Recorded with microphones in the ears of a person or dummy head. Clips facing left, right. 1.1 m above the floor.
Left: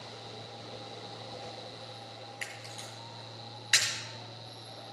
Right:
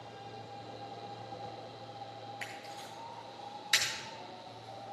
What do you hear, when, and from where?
2.4 s a camera shutter: 5° right (ahead or behind), 2.5 m